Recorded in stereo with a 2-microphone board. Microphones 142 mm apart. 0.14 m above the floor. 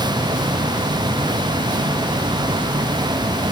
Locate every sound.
Only background noise.